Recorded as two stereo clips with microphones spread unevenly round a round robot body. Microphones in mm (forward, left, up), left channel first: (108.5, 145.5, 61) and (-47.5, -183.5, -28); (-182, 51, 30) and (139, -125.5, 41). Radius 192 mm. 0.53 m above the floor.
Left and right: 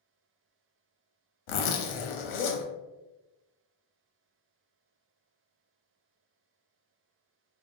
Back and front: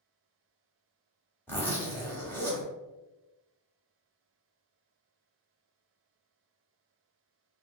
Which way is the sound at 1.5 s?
70° left.